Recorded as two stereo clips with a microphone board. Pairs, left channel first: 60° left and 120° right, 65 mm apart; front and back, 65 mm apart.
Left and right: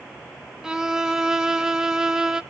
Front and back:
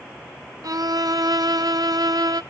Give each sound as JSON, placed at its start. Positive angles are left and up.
{"t": 0.6, "sound": "a violin", "azimuth_deg": 160, "distance_m": 0.5}